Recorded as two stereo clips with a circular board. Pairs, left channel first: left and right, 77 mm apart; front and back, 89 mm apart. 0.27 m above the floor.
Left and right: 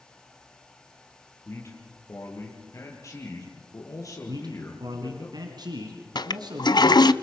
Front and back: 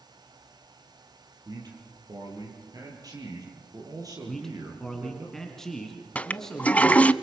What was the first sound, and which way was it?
A man speaking, 140° left.